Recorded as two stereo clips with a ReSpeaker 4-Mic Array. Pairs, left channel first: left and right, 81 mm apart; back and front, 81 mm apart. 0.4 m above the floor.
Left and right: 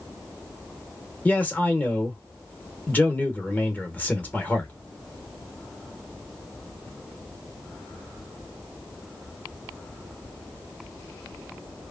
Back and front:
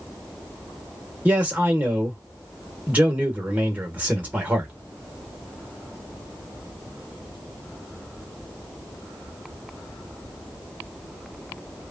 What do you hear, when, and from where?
1.2 s a man speaking: 40° left, 1.0 m